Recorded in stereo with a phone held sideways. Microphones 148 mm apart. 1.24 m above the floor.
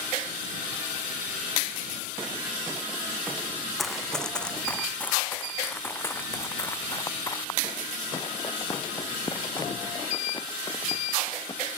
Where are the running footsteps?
Centre (ahead or behind); by 11.8 s 30° left (ahead or behind).